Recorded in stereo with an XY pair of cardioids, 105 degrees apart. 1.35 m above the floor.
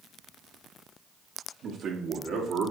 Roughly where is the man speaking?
Ahead right.